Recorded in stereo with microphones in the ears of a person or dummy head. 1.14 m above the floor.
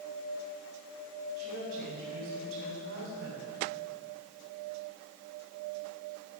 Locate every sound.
1.4 s a woman speaking: 60° right (ahead or behind), 4 m